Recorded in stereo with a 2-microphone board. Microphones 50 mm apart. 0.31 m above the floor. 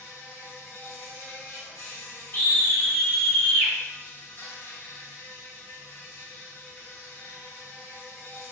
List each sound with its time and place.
0.0 s an insect: 75° left (ahead or behind), 1.9 m
2.3 s a scream: 50° left (ahead or behind), 1.6 m